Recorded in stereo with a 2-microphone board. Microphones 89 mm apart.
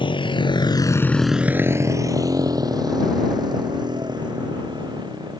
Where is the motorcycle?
85° left; by 5.4 s 60° right (ahead or behind).